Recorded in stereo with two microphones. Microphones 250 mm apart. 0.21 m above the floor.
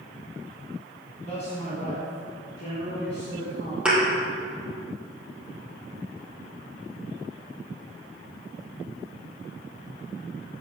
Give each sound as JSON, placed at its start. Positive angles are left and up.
{"t": 1.2, "sound": "a man speaking", "side_deg": 25, "distance_m": 1.8}
{"t": 3.9, "sound": "a thud", "side_deg": -5, "distance_m": 3.0}